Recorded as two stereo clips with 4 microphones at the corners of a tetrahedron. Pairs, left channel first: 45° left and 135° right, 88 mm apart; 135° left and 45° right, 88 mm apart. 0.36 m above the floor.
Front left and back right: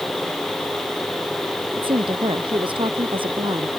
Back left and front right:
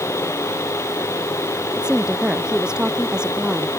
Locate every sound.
1.7 s a woman speaking: 125° right